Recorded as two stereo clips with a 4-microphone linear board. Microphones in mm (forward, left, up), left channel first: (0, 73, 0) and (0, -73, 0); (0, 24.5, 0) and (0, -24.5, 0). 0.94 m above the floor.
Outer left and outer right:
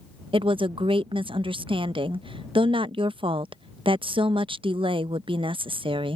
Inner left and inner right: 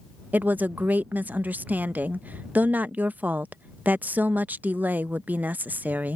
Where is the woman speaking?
35° right (ahead or behind).